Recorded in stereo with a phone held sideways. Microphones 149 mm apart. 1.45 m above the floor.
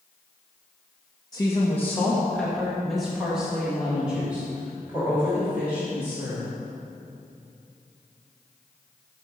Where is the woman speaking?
25° left (ahead or behind), 0.8 m; by 6.5 s 10° right (ahead or behind), 4 m.